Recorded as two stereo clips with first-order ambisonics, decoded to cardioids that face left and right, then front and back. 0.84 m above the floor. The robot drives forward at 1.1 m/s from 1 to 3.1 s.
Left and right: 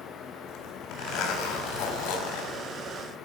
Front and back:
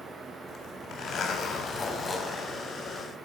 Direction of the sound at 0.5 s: 55° left.